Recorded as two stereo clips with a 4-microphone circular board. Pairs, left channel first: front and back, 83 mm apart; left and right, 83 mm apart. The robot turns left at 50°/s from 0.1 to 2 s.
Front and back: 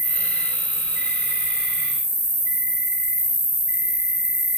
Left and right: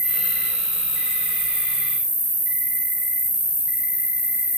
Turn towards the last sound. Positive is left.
turn(degrees=-155)